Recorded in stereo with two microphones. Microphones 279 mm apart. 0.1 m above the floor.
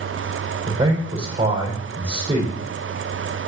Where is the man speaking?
20° right (ahead or behind), 5 m.